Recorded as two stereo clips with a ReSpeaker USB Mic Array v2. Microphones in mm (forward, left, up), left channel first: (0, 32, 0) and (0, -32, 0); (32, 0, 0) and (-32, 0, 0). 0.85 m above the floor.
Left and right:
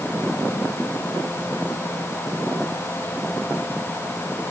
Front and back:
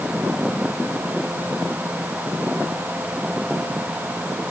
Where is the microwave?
No microwave in this recording.